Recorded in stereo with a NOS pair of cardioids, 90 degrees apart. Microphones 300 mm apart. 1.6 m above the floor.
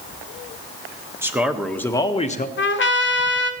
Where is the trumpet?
40° left, 0.7 m.